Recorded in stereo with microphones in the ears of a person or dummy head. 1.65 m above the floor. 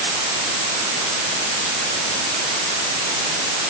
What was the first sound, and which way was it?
Only background noise.